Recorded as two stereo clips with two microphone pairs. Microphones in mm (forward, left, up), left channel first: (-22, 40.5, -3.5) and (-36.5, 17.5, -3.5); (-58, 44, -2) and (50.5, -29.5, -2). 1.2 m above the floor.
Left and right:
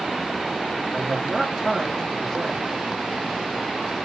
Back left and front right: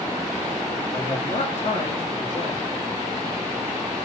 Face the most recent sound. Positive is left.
turn(degrees=125)